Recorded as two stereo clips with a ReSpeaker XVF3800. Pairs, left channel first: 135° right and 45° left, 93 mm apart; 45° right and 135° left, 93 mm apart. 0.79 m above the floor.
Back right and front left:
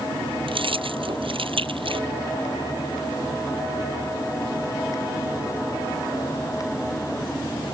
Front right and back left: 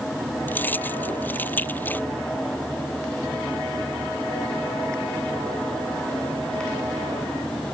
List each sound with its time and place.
0.5 s keys jangling: 25° left